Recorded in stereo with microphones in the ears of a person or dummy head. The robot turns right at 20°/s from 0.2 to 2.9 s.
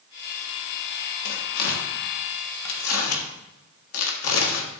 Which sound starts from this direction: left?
Tearing paper, at 1.2 s.